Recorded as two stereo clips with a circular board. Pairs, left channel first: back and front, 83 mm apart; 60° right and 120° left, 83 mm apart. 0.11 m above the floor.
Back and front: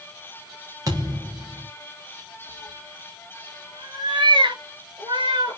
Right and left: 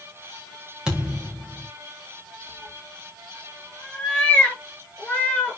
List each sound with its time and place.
0.9 s a thud: 40° left, 4.5 m
2.5 s a cat meowing: 15° left, 7.5 m